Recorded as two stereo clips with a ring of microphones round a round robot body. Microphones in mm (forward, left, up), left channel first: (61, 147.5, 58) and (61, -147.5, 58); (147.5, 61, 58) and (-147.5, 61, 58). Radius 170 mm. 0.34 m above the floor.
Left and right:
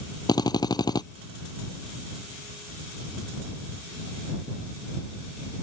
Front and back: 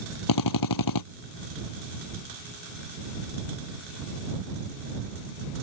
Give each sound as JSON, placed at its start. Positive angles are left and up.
{"t": 0.3, "sound": "a drill", "azimuth_deg": 15}